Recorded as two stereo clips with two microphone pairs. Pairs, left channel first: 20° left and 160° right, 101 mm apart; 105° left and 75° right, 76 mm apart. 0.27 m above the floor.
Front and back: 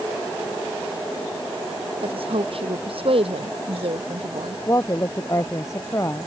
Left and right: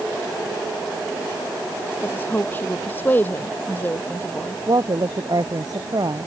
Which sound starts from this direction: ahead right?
A woman speaking, at 4.7 s.